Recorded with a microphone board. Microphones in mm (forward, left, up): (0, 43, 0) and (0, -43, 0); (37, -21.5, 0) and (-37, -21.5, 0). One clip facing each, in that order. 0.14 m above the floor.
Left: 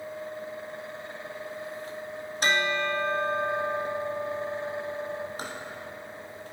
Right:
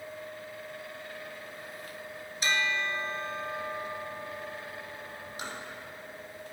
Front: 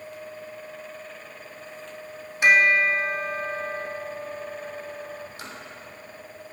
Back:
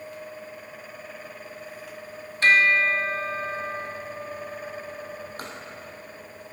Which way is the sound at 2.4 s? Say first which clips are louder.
Left 4 dB, front 1 dB; 75° left.